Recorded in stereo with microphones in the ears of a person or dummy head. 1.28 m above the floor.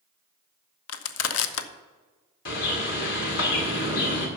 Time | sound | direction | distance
0.9 | crushing | 90° left | 0.9 m
2.5 | a bird | 65° left (ahead or behind) | 2 m